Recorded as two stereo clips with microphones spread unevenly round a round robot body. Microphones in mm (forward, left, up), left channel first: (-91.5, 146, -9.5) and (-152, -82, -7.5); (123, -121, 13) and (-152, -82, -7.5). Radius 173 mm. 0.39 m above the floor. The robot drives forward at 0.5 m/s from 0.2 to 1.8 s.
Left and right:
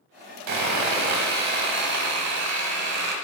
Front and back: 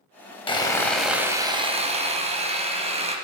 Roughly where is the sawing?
Right.